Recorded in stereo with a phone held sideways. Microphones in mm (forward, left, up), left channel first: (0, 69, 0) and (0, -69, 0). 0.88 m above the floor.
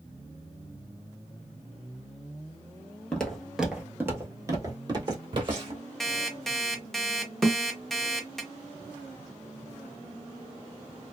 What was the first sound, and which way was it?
Footsteps, 5° left (ahead or behind).